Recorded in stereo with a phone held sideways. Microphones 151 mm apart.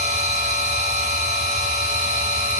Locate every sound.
0.0 s a machine running: 50° right (ahead or behind), 2 m